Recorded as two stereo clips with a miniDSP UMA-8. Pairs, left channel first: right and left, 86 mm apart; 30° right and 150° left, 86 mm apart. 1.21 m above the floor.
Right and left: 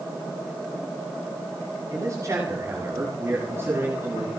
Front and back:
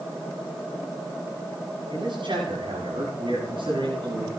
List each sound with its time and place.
1.9 s a man speaking: 140° left, 8.5 m; by 4.3 s 155° left, 7 m